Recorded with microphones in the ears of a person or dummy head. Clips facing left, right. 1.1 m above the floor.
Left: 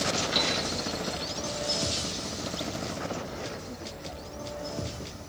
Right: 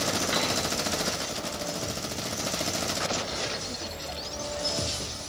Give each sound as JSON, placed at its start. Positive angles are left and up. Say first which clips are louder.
{"t": 0.3, "sound": "a piano", "louder": "right 1 dB", "side_deg": -55, "distance_m": 7.0}